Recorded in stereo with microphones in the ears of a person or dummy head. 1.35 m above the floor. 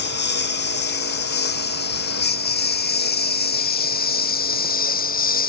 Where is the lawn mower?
60° left (ahead or behind); by 5.5 s 50° left (ahead or behind).